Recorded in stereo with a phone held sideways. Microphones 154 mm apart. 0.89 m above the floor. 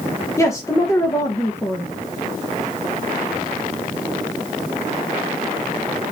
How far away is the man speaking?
About 0.6 m.